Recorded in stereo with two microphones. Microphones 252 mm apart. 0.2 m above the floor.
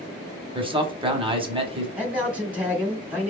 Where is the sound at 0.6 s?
20° right (ahead or behind), 1.0 m.